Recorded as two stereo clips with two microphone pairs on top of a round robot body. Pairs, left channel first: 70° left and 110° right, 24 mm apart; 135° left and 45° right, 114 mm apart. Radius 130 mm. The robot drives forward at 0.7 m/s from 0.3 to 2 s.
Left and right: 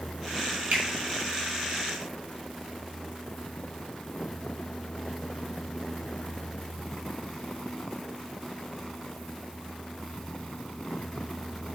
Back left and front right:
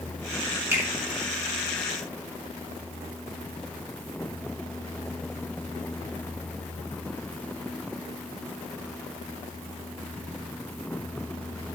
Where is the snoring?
I don't hear snoring.